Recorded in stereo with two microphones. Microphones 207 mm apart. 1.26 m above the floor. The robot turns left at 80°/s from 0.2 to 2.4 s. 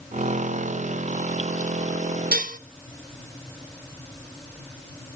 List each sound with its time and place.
2.3 s dishes clattering: 45° right (ahead or behind), 0.6 m